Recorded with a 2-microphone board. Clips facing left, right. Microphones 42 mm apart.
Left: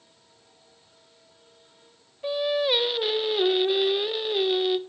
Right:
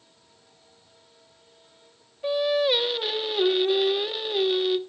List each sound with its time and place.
2.2 s singing: 5° left (ahead or behind), 1.0 m